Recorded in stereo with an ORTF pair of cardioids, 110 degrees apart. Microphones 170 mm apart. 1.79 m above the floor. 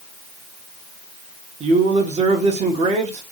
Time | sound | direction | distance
1.6 | a man speaking | 40° right | 1.5 m